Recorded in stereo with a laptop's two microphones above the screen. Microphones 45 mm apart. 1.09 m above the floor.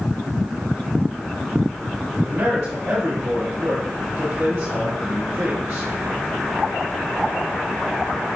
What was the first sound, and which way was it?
A man speaking, 80° right.